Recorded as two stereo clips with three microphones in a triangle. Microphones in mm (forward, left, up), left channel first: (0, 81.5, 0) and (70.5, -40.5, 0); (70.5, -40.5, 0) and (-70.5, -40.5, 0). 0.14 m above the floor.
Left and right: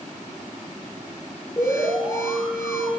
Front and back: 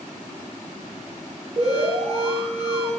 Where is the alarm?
175° right, 1.7 m.